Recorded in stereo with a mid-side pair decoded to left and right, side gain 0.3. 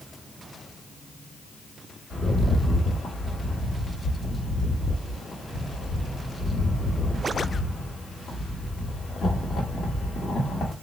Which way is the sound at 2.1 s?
65° left.